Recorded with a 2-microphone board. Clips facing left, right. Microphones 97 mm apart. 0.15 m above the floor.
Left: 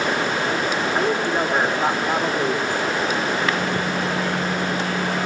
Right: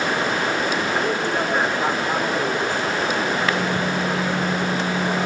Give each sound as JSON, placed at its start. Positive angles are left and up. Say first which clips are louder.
{"t": 0.9, "sound": "a woman speaking", "louder": "left 1 dB", "side_deg": 15, "distance_m": 7.0}
{"t": 3.4, "sound": "a microwave", "louder": "right 1 dB", "side_deg": -10, "distance_m": 3.0}